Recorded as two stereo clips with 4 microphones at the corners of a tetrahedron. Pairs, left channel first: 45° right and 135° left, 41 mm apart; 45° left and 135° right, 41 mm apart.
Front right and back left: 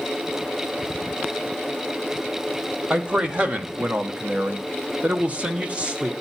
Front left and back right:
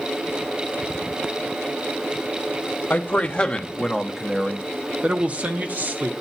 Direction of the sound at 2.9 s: 85° left.